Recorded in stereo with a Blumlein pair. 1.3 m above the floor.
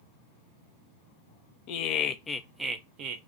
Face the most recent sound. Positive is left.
turn(degrees=-45)